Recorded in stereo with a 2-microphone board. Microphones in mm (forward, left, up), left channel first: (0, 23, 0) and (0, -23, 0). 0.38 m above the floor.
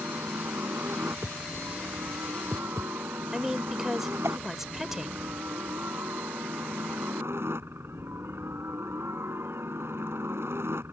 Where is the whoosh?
75° right (ahead or behind).